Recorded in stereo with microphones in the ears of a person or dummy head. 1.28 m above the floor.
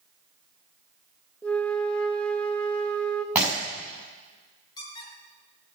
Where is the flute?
10° left (ahead or behind), 0.9 m.